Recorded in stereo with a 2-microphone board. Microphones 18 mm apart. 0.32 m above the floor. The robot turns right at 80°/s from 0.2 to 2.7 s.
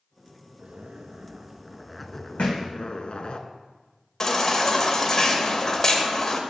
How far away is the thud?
About 1.7 m.